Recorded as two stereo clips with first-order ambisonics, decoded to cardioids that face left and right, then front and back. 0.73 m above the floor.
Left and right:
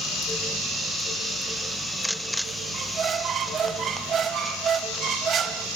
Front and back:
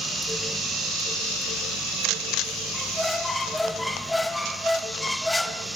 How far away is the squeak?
About 0.6 m.